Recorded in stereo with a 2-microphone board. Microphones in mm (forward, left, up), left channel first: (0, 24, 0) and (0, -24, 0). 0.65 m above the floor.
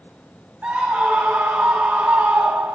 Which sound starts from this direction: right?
A scream, at 0.6 s.